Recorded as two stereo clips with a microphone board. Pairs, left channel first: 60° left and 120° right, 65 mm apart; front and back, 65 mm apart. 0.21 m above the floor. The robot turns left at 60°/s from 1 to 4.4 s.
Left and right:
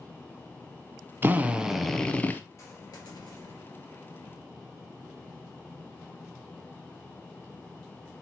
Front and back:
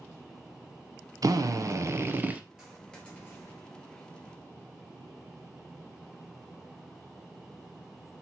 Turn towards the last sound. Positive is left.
turn(degrees=-5)